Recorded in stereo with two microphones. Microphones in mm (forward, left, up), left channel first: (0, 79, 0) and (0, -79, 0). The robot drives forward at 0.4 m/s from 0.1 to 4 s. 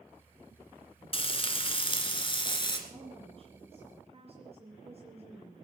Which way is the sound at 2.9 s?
40° right (ahead or behind).